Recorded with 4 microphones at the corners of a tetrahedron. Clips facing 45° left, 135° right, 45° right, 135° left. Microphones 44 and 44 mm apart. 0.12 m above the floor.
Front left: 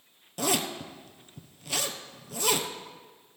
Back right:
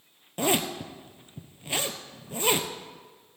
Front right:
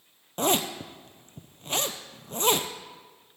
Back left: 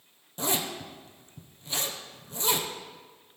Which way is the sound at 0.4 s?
75° right.